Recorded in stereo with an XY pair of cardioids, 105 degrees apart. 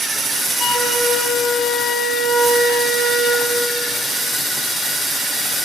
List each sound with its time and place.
0.6 s a flute: 65° left, 5 m